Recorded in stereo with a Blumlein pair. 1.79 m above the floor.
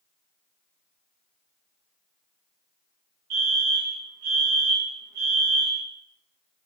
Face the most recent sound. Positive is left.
turn(degrees=-50)